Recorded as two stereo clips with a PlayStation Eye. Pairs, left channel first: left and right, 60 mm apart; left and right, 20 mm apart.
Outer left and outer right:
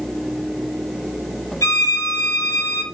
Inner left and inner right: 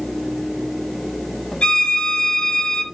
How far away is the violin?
About 0.6 m.